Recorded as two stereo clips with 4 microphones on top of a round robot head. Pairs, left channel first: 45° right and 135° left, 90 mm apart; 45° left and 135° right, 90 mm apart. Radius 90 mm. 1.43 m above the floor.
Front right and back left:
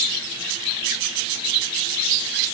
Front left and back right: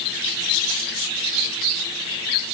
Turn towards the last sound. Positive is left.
No sound to turn to.